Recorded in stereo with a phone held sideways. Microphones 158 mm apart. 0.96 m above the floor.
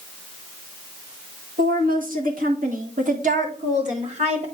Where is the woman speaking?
60° right (ahead or behind), 1.6 m; by 4.5 s 45° right (ahead or behind), 1.9 m.